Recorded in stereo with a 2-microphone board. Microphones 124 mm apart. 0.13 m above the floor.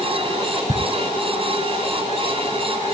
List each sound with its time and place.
0.7 s ticking: 60° left (ahead or behind), 3.5 m